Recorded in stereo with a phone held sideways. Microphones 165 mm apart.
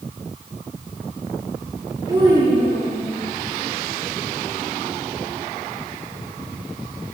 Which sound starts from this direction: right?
A child speaking, at 2.1 s.